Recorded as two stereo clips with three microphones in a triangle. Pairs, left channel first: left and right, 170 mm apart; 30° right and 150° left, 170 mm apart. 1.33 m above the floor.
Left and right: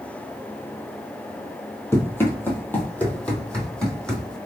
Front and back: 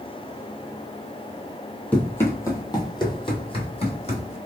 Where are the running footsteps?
40° left, 1.4 m; by 4.4 s 5° left, 2 m.